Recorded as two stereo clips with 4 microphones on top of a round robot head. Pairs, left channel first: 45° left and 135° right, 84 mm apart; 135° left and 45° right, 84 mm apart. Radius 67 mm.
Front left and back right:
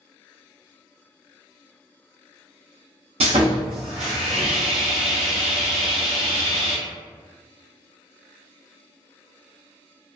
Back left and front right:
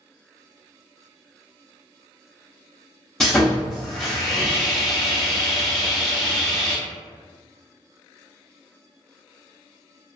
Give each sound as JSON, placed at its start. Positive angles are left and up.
{"t": 3.2, "sound": "sawing", "azimuth_deg": -145, "distance_m": 0.6}